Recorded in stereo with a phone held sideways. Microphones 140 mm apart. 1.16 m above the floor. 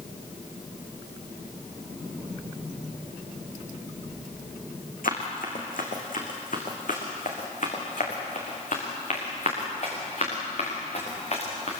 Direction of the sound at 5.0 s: 75° left (ahead or behind).